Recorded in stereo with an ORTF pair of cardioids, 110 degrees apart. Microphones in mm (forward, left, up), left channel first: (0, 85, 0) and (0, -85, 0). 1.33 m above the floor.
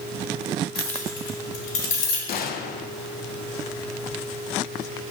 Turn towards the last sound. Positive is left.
turn(degrees=60)